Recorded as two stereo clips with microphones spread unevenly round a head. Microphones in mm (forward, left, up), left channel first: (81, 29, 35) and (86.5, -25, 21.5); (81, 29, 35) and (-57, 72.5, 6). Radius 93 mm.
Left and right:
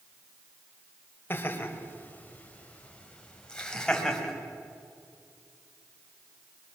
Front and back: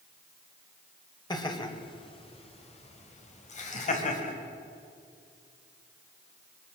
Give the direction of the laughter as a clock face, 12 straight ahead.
10 o'clock.